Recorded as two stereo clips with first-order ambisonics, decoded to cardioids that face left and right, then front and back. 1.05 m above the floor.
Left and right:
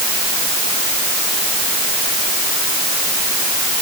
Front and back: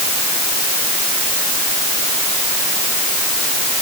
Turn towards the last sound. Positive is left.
No sound to turn to.